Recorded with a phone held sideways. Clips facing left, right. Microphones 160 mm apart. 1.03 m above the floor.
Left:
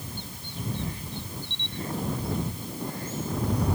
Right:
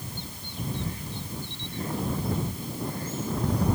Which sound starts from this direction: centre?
A camera shutter, at 1.5 s.